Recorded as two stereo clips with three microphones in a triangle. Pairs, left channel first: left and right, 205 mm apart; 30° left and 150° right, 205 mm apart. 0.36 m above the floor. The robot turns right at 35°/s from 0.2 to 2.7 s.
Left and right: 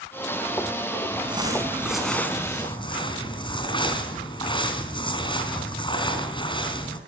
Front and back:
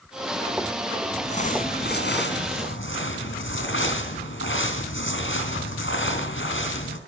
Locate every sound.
1.1 s crumpling: 30° right, 3.5 m; by 7.0 s 25° left, 3.5 m